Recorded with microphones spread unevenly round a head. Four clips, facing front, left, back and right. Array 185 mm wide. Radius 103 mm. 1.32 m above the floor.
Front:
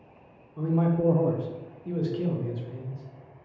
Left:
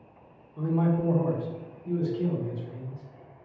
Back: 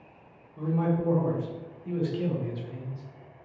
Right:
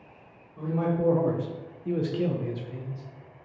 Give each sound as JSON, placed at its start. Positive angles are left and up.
{"t": 0.6, "sound": "a man speaking", "azimuth_deg": 20, "distance_m": 0.5}